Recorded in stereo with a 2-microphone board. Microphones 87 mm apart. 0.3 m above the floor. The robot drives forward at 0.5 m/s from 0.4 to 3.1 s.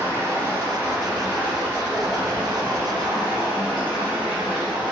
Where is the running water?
25° right (ahead or behind), 1.7 m; by 4.9 s 15° right (ahead or behind), 3 m.